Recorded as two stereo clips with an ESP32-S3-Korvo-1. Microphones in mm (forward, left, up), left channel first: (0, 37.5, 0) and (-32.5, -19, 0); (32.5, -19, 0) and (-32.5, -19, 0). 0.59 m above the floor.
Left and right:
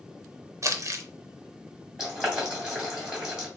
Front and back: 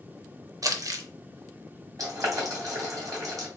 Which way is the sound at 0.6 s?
160° right.